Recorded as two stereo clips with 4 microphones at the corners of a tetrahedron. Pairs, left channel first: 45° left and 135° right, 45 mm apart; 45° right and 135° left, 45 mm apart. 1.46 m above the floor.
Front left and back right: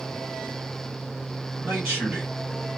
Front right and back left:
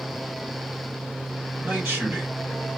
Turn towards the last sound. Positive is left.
turn(degrees=-175)